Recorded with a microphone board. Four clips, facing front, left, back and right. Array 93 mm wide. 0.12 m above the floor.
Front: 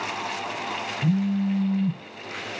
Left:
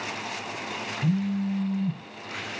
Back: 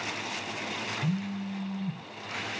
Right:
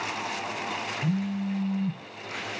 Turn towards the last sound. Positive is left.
turn(degrees=5)